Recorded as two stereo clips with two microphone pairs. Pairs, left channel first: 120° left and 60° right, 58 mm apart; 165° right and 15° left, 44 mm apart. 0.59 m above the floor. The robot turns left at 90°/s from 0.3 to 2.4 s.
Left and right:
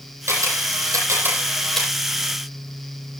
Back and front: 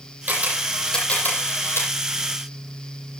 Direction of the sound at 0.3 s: 30° right.